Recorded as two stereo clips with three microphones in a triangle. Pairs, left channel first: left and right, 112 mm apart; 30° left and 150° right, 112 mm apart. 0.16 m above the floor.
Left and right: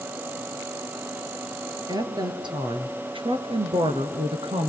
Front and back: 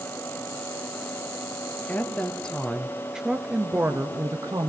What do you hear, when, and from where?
1.9 s a woman speaking: 45° right, 3 m; by 4.7 s 110° right, 2.5 m